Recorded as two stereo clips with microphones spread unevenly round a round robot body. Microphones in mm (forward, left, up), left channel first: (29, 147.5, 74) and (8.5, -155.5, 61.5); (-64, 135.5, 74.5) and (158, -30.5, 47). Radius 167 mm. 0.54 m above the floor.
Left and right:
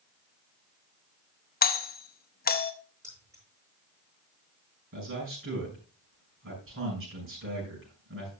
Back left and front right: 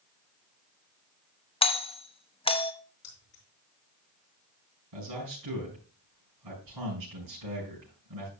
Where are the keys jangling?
175° right, 6 m.